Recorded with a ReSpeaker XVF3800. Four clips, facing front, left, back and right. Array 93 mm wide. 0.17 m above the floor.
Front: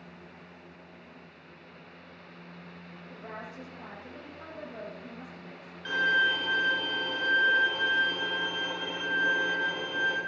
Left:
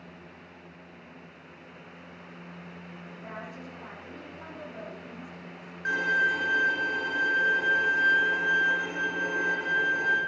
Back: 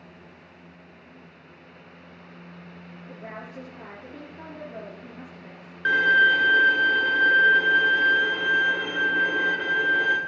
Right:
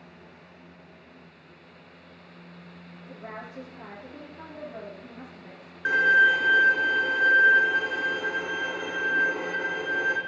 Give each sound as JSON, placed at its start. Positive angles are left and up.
{"t": 3.1, "sound": "a woman speaking", "azimuth_deg": -155, "distance_m": 3.5}
{"t": 5.8, "sound": "a violin", "azimuth_deg": -155, "distance_m": 1.5}